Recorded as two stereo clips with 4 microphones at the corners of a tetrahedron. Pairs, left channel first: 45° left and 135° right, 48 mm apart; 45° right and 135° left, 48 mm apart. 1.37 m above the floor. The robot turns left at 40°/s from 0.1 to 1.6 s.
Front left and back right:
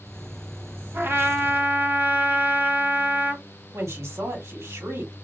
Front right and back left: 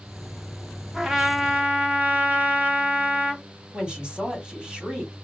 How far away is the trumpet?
About 0.9 m.